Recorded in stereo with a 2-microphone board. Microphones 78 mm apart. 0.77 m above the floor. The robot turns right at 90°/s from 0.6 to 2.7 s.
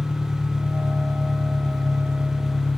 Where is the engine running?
170° right, 1.8 m; by 2.8 s 20° left, 1.8 m.